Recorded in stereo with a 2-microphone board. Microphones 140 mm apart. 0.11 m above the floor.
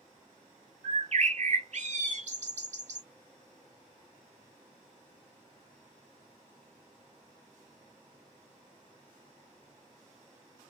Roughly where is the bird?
Right.